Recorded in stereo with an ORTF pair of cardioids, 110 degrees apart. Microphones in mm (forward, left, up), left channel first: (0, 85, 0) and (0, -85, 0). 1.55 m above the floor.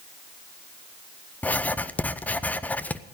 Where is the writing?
10° left, 0.6 m.